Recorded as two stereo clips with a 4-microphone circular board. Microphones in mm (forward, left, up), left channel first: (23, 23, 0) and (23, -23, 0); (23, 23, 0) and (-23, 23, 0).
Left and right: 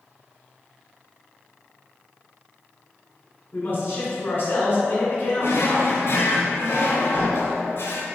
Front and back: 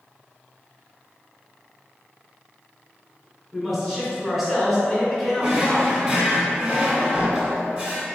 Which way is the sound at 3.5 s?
105° left.